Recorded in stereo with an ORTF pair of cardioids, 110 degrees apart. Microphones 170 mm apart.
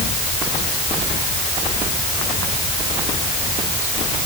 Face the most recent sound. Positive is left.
No sound to turn to.